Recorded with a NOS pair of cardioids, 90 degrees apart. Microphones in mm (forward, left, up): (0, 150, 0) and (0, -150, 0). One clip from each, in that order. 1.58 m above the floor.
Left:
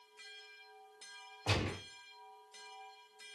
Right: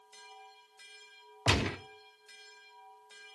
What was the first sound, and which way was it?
A gunshot, 45° right.